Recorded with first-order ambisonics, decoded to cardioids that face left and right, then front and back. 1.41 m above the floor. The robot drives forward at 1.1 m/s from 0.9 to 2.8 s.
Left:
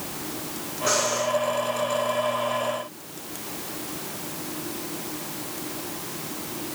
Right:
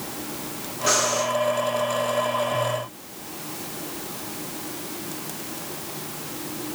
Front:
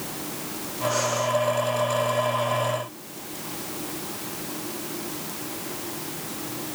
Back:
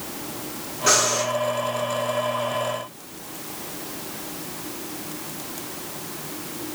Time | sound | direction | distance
0.9 | breathing | 160° right | 4 m